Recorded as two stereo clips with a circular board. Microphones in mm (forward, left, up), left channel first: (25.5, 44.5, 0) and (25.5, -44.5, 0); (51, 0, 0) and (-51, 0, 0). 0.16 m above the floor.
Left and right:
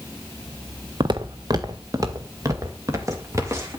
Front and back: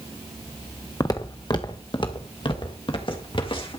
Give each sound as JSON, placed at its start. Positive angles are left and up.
{"t": 1.0, "sound": "footsteps", "azimuth_deg": -55, "distance_m": 1.0}